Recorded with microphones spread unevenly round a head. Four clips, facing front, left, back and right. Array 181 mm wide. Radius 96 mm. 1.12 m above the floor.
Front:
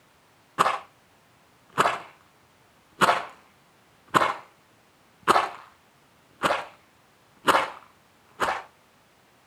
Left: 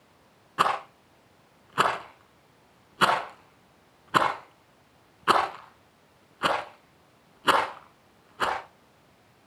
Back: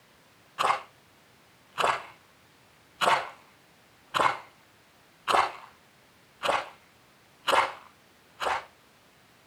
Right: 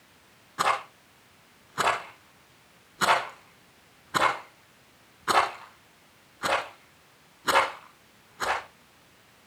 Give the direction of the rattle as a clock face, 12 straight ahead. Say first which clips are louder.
Left 1 dB, front 3 dB; 11 o'clock.